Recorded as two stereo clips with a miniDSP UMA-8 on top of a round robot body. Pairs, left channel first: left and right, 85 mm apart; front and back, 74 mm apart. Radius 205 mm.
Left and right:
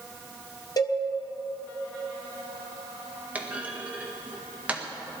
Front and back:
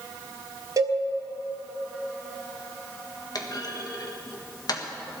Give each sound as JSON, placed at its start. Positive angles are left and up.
{"t": 0.8, "sound": "a cowbell", "azimuth_deg": 135, "distance_m": 1.4}
{"t": 3.4, "sound": "a clunk", "azimuth_deg": -20, "distance_m": 1.8}